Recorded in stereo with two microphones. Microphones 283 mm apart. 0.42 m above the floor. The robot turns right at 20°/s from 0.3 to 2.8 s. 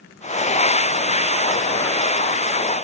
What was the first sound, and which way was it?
Only background noise.